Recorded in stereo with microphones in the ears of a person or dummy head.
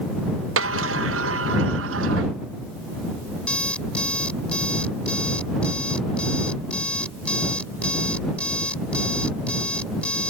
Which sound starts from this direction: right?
A sliding door, at 0.6 s.